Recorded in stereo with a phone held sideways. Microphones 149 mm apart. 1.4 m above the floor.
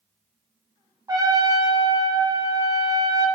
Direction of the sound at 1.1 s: 25° right (ahead or behind).